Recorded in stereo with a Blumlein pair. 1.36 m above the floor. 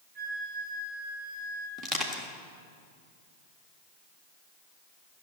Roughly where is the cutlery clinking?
I don't hear cutlery clinking.